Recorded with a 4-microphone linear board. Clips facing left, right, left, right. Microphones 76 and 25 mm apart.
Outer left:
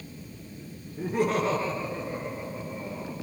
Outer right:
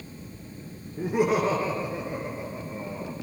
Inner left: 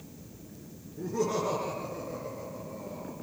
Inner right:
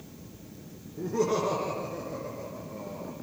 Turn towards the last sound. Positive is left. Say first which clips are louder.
# outer right 2 dB, inner right 3 dB
turn(degrees=-10)  # may be behind; listen again after turning